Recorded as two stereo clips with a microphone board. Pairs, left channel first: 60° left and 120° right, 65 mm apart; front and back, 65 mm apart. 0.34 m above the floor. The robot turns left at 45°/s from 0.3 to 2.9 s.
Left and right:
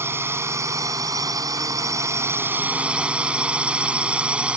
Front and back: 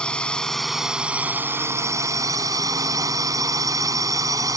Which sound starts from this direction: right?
A drone, at 0.0 s.